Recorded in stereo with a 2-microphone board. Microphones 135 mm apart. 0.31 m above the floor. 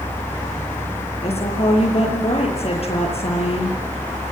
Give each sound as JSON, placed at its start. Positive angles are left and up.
{"t": 1.2, "sound": "a woman speaking", "side_deg": 50, "distance_m": 7.0}